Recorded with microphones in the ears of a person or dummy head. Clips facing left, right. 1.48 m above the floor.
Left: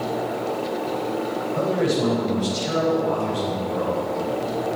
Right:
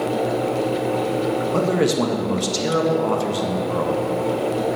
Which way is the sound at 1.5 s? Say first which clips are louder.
Right 1 dB; 80° right.